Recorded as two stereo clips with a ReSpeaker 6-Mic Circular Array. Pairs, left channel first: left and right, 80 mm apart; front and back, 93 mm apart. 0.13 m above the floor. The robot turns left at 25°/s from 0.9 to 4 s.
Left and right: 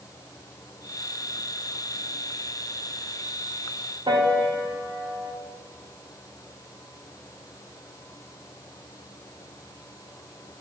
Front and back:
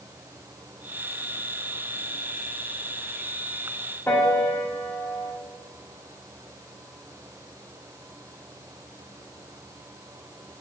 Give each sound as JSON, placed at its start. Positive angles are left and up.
{"t": 4.1, "sound": "a piano", "azimuth_deg": -65, "distance_m": 4.5}